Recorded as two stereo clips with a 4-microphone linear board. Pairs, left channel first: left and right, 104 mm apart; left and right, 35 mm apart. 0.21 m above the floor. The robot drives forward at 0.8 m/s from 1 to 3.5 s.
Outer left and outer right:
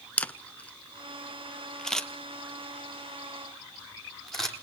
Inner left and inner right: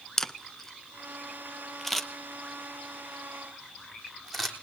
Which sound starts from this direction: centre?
A camera shutter, at 0.2 s.